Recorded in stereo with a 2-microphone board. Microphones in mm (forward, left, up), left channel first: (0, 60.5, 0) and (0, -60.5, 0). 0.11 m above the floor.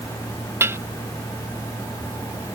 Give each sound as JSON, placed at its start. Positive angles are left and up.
{"t": 0.6, "sound": "dishes clattering", "side_deg": -20}